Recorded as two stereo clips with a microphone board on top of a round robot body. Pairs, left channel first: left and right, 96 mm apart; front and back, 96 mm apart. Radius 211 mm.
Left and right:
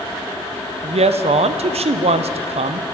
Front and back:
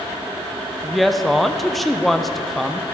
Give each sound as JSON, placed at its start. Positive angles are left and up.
{"t": 0.8, "sound": "a woman speaking", "azimuth_deg": -90, "distance_m": 0.6}